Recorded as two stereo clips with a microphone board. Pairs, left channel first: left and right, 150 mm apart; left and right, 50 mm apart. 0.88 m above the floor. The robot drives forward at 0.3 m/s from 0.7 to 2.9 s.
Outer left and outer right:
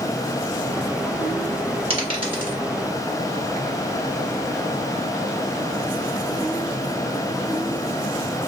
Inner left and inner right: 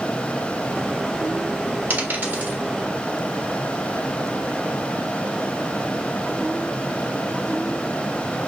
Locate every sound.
1.9 s a dropped coin: 40° right (ahead or behind), 1.5 m; by 2.6 s 35° right (ahead or behind), 1.7 m